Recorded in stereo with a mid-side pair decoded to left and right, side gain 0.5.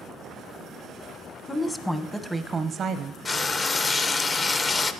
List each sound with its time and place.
1.5 s a woman speaking: 25° left, 0.9 m; by 3.1 s 70° right, 0.6 m
3.2 s frying: 35° left, 0.6 m